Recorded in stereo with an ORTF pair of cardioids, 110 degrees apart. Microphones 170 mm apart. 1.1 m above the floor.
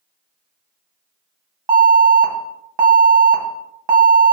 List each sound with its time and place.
1.7 s an alarm: 25° right, 1.1 m